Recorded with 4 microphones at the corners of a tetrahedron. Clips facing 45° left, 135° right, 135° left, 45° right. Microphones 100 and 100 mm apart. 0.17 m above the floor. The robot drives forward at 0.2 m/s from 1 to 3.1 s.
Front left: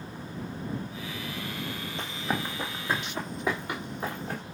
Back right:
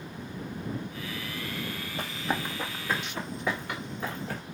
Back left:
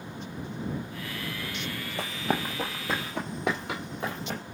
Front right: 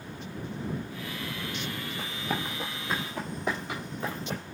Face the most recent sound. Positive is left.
turn(degrees=110)